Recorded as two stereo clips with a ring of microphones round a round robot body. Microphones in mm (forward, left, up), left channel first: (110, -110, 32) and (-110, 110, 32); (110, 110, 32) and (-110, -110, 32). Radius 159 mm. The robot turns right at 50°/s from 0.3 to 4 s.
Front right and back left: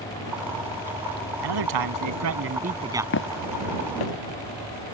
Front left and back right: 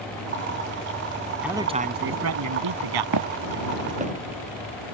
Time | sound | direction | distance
1.4 | a man speaking | 140° left | ?
3.1 | footsteps | 100° right | ?